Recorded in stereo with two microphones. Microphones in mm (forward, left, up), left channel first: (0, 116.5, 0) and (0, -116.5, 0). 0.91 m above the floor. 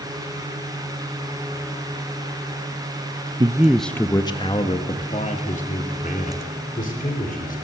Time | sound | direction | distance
3.4 | a man speaking | 20° right (ahead or behind) | 0.7 m